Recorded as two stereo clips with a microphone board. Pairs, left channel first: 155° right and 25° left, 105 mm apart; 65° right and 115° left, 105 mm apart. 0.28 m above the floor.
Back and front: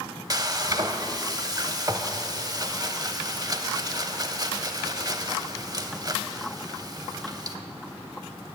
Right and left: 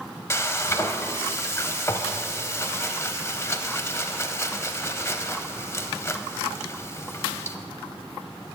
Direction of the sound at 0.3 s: 15° right.